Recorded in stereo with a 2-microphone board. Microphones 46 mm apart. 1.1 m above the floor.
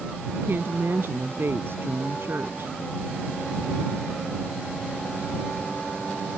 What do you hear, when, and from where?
0.3 s a woman speaking: 55° right (ahead or behind)